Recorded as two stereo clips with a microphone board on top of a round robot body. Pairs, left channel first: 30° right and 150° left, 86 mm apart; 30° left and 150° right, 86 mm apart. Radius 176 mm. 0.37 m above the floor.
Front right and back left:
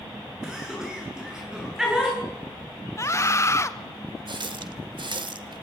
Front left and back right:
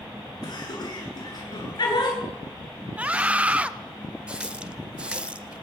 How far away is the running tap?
About 1.3 m.